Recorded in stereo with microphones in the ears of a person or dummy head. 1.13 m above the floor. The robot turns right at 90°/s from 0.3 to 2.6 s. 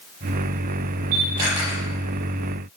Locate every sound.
1.1 s a camera shutter: 55° right (ahead or behind), 9 m; by 1.8 s 5° left (ahead or behind), 9 m